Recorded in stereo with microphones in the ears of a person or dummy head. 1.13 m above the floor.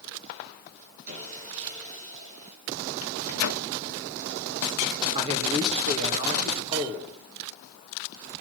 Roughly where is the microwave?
Left.